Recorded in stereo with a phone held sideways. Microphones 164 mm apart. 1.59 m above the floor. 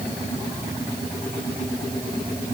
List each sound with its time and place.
Only background noise.